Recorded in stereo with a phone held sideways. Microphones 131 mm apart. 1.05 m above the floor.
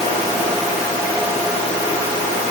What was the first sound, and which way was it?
Only background noise.